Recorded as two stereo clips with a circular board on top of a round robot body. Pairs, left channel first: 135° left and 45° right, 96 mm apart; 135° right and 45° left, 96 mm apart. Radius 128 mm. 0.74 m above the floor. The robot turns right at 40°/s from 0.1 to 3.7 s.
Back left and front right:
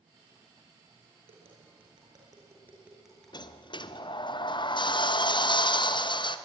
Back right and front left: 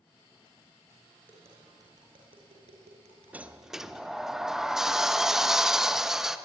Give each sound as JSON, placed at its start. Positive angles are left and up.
{"t": 1.3, "sound": "tapping", "azimuth_deg": -30, "distance_m": 5.5}
{"t": 3.3, "sound": "a sliding door", "azimuth_deg": 115, "distance_m": 1.1}